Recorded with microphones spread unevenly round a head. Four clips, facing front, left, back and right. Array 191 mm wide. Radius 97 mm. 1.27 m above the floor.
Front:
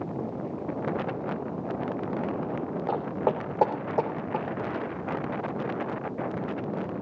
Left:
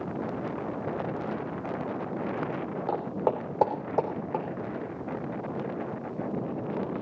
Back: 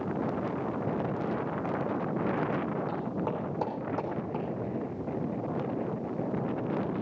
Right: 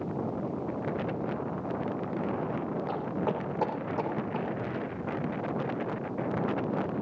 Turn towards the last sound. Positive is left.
turn(degrees=50)